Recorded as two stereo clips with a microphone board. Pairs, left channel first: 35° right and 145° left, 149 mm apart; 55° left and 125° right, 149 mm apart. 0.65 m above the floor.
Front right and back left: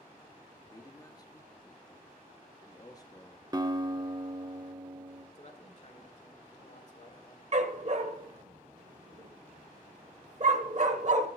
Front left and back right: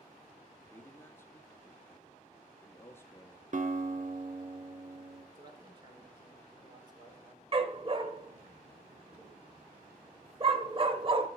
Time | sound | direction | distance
0.7 | a man speaking | straight ahead | 0.8 m
3.5 | a guitar | 150° right | 0.7 m
5.3 | a man speaking | 70° right | 1.8 m
7.5 | a dog barking | 175° right | 0.8 m